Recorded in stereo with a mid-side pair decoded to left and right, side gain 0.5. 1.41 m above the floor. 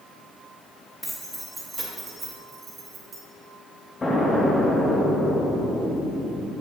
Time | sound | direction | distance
1.0 | keys jangling | 10° left | 2 m
4.0 | an explosion | 30° left | 2.0 m